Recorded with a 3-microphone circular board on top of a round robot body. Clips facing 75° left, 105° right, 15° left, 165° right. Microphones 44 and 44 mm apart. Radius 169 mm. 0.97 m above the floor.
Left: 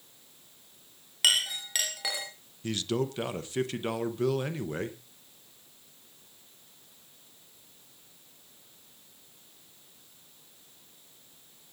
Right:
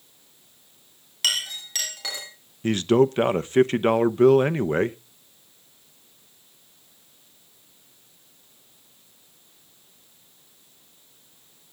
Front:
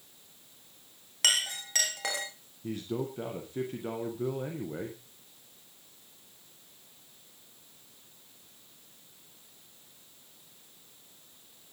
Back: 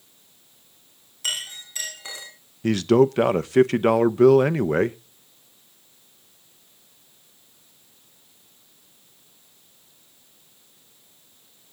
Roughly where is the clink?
Ahead.